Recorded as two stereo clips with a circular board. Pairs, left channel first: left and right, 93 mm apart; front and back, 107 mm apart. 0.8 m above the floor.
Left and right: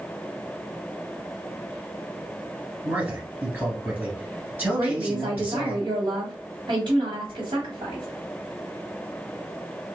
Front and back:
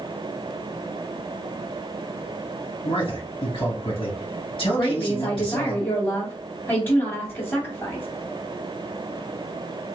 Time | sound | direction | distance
2.8 | a man speaking | 25° right | 2.0 m
4.8 | a woman speaking | 75° right | 1.8 m